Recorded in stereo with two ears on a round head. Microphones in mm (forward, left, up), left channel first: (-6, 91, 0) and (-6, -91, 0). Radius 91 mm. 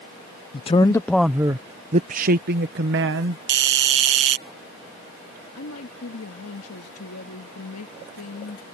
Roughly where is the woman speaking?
Left.